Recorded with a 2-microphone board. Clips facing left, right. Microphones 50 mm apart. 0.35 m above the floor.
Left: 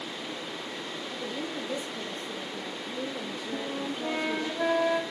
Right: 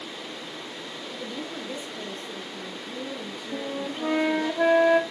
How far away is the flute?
About 0.9 m.